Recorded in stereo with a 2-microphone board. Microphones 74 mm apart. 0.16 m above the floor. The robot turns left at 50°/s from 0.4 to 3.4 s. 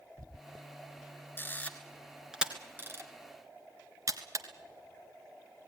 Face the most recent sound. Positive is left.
turn(degrees=-50)  # may be behind; listen again after turning